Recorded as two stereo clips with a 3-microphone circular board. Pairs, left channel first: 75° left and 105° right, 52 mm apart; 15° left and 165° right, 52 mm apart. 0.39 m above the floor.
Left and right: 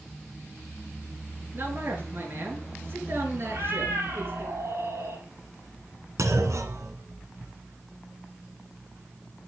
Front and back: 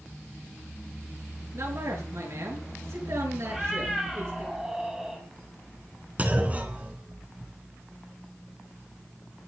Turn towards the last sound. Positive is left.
turn(degrees=-105)